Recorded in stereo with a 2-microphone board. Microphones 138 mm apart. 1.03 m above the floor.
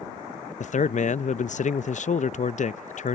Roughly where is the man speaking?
Left.